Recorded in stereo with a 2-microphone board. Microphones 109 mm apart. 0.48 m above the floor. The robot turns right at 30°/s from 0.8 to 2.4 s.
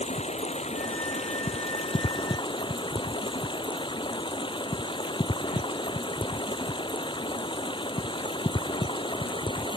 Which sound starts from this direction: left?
Running water, at 0.0 s.